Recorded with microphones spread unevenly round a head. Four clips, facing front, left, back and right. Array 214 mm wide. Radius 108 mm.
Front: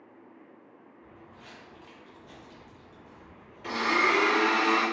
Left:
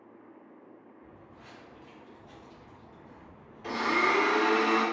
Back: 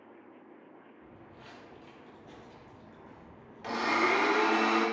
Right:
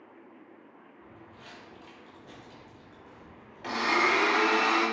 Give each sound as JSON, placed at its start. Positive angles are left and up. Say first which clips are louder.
{"t": 1.0, "sound": "footsteps", "louder": "right 1 dB, front 3 dB", "azimuth_deg": -120, "distance_m": 1.1}
{"t": 3.6, "sound": "a blender", "louder": "right 1 dB, front 2 dB", "azimuth_deg": -105, "distance_m": 1.6}